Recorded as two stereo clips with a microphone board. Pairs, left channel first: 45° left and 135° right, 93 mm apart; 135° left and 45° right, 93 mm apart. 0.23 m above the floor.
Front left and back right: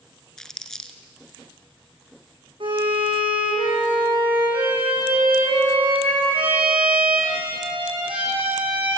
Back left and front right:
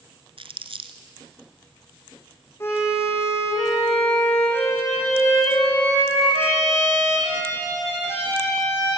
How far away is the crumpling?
About 1.8 m.